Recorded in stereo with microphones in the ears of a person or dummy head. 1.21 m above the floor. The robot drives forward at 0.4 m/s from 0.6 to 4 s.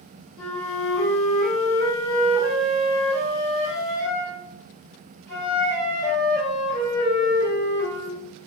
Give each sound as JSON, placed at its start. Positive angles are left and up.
{"t": 0.4, "sound": "a flute", "side_deg": 5, "distance_m": 1.0}